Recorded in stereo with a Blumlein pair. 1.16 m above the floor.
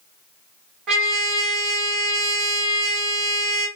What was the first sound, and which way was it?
A trumpet, 30° right.